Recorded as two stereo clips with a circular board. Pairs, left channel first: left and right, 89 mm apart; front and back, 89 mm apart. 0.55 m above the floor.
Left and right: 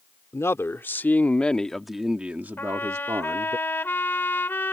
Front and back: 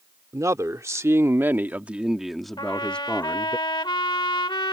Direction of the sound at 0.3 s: 140° left.